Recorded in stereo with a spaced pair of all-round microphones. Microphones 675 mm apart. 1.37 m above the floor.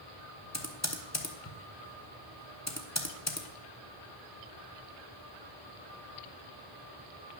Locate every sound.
0.5 s typing on a keyboard: 25° left (ahead or behind), 0.9 m